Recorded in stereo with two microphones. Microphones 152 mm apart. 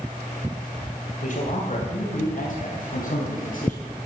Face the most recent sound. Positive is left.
turn(degrees=70)  # may be behind; listen again after turning